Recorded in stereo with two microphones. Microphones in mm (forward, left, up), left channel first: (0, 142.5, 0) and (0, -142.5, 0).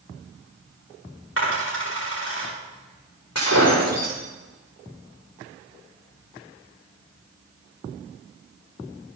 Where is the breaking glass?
70° left (ahead or behind), 8.5 m.